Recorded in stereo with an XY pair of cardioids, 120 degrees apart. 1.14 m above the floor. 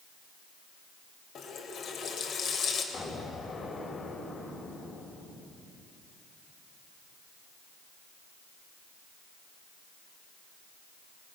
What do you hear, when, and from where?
1.4 s a running tap: 55° left, 3.5 m
2.9 s an explosion: 40° left, 3.5 m